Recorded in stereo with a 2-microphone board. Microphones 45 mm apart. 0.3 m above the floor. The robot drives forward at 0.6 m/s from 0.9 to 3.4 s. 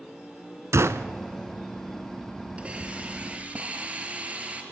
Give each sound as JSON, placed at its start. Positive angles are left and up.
{"t": 0.7, "sound": "a gunshot", "side_deg": -80, "distance_m": 0.9}
{"t": 2.6, "sound": "a hiss", "side_deg": -25, "distance_m": 4.0}